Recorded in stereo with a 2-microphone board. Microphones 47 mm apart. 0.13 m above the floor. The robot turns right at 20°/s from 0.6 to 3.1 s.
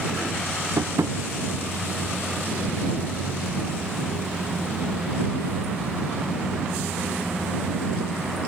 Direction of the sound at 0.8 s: 80° right.